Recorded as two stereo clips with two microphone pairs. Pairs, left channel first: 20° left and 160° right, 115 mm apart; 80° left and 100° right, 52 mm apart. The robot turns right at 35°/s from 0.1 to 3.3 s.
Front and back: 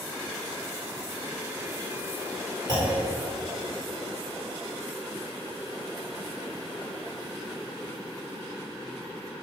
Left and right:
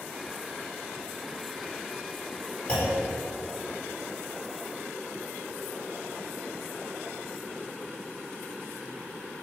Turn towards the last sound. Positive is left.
turn(degrees=170)